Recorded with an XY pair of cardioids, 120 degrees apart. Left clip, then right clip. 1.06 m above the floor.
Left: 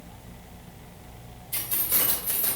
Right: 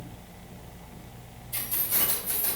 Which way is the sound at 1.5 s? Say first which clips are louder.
Left 2 dB; 55° left.